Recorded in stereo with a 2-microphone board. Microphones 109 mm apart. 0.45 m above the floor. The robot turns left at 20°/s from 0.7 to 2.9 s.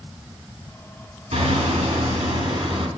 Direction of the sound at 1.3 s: 95° right.